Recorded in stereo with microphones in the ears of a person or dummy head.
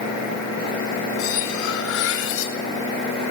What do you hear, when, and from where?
1.2 s cutlery clinking: 70° left (ahead or behind), 3 m